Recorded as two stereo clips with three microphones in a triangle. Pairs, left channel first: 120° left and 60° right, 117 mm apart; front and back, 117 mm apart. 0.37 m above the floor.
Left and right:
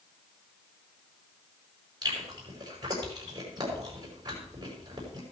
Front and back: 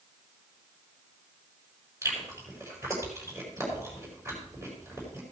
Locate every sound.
2.0 s chewing: 115° right, 5.5 m